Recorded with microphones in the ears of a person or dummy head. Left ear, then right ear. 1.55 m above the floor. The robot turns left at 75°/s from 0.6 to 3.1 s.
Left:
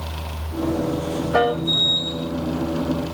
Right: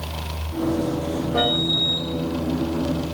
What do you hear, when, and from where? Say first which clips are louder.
1.3 s a piano: left 2 dB; 50° left (ahead or behind), 1.7 m; by 1.6 s 55° left (ahead or behind), 1.7 m